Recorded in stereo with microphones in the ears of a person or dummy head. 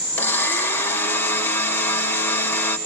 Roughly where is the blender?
Centre.